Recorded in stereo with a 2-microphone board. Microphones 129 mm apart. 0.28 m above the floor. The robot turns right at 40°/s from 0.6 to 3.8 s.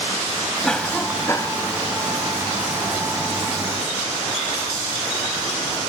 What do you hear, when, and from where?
0.6 s a cough: 5° left; by 1.6 s 45° left